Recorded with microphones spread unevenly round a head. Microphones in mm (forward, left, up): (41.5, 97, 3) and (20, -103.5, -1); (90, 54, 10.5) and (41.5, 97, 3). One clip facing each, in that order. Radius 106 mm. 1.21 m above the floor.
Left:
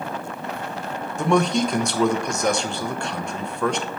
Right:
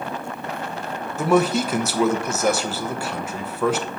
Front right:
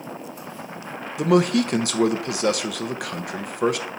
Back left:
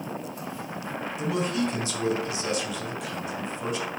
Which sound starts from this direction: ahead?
A man speaking, at 1.2 s.